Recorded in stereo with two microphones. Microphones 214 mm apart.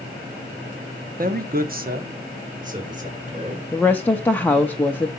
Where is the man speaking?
45° right (ahead or behind), 0.6 m; by 3.6 s 35° right (ahead or behind), 1.9 m.